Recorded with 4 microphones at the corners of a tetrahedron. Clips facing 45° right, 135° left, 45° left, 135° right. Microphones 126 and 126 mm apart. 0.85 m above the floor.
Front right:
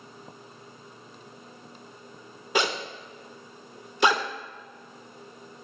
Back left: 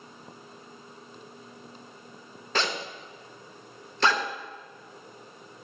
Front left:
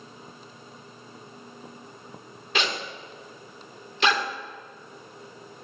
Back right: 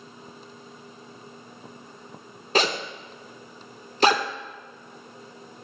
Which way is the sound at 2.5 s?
115° right.